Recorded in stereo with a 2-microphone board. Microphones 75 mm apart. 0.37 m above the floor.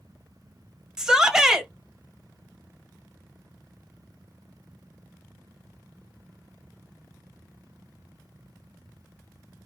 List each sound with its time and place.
1.0 s a shout: 10° right (ahead or behind), 1.1 m